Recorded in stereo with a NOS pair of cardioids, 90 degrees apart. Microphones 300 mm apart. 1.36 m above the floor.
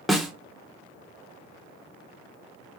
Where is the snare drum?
Straight ahead, 0.8 m.